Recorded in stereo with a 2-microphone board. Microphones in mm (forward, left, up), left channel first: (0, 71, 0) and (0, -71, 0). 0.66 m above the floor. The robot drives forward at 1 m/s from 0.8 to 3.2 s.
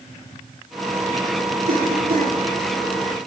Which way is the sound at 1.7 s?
85° right.